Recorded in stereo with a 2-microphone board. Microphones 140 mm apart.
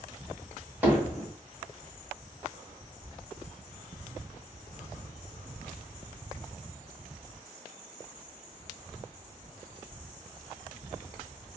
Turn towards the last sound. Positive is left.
turn(degrees=-10)  # may be behind; listen again after turning